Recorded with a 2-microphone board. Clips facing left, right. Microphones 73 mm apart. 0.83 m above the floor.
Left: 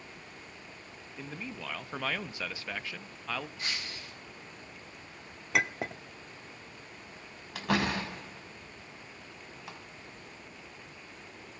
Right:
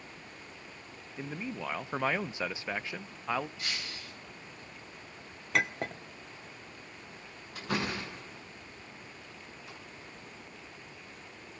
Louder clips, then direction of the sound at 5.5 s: Even; 5° left (ahead or behind).